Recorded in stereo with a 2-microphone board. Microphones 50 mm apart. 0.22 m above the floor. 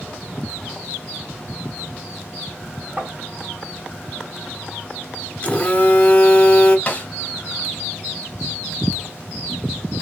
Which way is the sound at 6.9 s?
30° left (ahead or behind).